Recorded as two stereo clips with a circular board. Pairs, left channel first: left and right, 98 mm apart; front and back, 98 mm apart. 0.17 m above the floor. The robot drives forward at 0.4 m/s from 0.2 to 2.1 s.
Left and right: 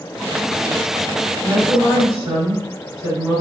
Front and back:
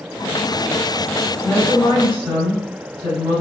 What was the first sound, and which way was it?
A woman speaking, 145° right.